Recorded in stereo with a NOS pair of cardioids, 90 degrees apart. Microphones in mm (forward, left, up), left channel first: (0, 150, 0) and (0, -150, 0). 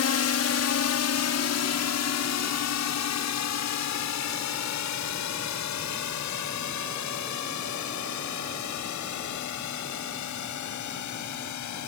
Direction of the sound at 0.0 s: 55° left.